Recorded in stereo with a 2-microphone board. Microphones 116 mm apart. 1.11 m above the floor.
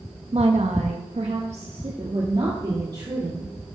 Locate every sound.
0.3 s a woman speaking: 60° right (ahead or behind), 1.2 m; by 3.5 s 40° right (ahead or behind), 3 m